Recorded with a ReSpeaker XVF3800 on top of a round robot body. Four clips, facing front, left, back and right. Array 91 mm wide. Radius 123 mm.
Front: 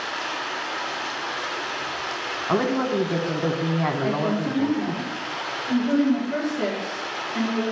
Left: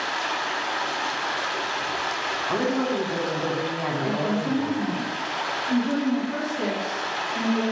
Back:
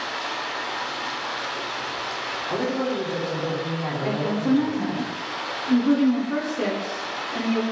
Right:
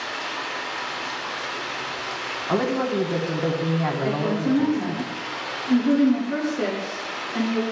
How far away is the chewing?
I don't hear chewing.